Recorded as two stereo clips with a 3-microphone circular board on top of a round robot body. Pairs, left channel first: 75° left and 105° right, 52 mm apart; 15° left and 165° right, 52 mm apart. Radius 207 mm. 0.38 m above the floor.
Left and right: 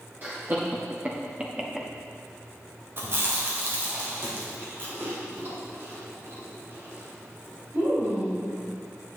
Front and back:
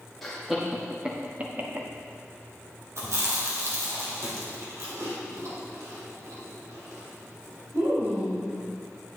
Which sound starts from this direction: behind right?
Chewing, at 3.0 s.